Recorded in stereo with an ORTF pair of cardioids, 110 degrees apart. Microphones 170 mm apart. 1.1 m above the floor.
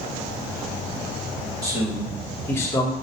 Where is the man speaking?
20° right, 1.7 m; by 2.9 s 30° left, 1.2 m.